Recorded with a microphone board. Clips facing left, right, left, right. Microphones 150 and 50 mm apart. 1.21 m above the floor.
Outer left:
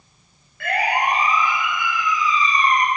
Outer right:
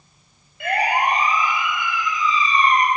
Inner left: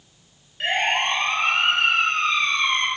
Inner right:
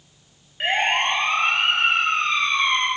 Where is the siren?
20° right (ahead or behind), 8 m; by 2.9 s 30° right (ahead or behind), 5.5 m.